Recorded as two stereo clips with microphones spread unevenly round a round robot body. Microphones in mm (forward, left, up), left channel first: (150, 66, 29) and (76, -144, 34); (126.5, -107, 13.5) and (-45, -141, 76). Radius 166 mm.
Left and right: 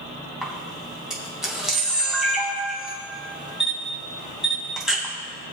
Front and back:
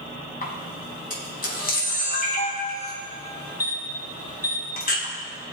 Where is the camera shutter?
20° right, 3 m.